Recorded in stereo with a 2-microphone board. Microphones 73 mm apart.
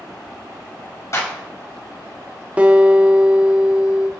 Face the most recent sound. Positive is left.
turn(degrees=-20)  # may be behind; listen again after turning